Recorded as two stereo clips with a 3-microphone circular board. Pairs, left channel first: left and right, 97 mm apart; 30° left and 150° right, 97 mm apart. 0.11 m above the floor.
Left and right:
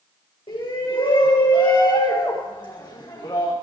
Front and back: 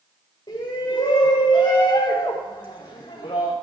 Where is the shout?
65° left, 6.5 m; by 3.5 s 50° left, 6.5 m.